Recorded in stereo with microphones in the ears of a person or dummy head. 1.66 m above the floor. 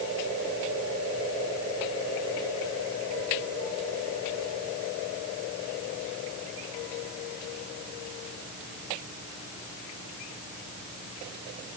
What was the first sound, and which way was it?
Only background noise.